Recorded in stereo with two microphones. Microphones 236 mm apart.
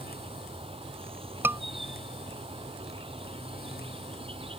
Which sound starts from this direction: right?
An insect, at 0.0 s.